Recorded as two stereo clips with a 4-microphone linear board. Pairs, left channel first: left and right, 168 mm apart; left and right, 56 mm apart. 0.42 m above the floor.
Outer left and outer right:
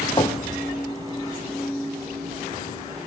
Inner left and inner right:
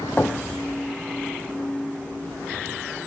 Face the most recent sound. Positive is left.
turn(degrees=30)  # may be behind; listen again after turning